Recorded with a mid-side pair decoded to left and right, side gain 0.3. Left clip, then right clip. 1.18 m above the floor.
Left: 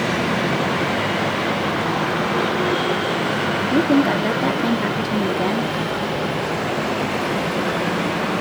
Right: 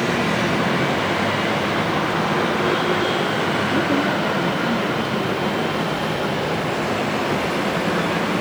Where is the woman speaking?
60° left, 2.5 m.